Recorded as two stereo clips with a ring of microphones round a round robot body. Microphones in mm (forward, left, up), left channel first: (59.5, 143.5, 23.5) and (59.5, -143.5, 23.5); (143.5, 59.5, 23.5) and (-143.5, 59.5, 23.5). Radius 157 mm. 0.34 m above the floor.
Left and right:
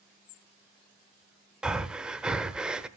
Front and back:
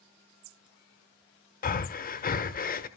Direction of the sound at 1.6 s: 5° right.